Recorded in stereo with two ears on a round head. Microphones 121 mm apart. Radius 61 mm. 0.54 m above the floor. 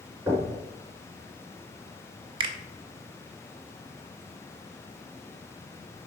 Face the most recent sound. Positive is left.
turn(degrees=-35)  # may be behind; listen again after turning